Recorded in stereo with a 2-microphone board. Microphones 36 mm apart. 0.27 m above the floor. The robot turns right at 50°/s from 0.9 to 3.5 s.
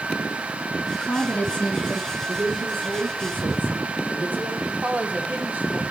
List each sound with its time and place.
0.9 s a woman speaking: 100° left, 3 m; by 2.2 s 160° left, 3 m
2.3 s a woman speaking: 115° right, 6.5 m; by 4.6 s 55° right, 6.5 m
4.7 s a woman speaking: 40° right (ahead or behind), 1.9 m